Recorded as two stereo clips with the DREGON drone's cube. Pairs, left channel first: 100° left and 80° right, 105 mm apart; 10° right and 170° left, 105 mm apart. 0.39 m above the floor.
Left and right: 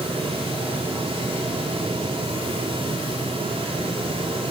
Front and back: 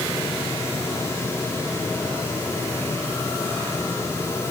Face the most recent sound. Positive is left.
No sound to turn to.